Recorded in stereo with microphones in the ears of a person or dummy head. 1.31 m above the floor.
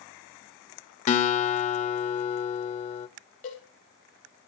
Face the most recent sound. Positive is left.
turn(degrees=40)  # may be behind; listen again after turning